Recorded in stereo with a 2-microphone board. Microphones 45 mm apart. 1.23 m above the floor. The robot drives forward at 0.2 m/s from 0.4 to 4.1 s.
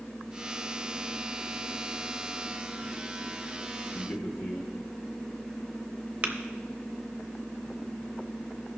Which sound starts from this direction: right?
Tapping, at 6.2 s.